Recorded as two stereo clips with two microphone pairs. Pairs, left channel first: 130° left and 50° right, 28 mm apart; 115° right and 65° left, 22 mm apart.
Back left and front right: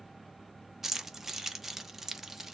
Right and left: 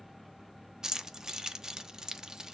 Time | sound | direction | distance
0.8 | keys jangling | 30° left | 0.6 m